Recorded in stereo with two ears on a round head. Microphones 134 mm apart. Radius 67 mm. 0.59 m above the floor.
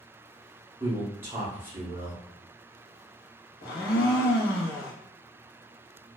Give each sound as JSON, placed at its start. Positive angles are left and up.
{"t": 0.8, "sound": "a man speaking", "side_deg": -15, "distance_m": 0.9}
{"t": 3.6, "sound": "a blender", "side_deg": 70, "distance_m": 0.7}